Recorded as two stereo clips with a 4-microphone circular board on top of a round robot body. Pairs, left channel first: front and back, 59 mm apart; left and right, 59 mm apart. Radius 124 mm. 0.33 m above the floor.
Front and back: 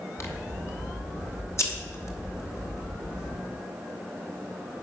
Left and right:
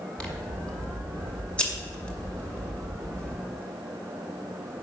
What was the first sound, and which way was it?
Scissors, 25° left.